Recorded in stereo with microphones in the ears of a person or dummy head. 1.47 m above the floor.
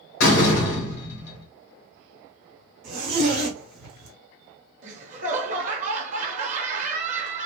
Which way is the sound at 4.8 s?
45° right (ahead or behind).